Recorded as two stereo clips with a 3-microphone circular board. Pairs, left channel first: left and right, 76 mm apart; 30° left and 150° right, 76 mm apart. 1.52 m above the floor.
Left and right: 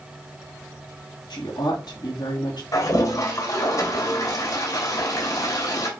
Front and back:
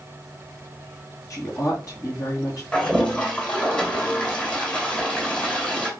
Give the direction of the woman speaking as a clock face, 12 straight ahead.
10 o'clock.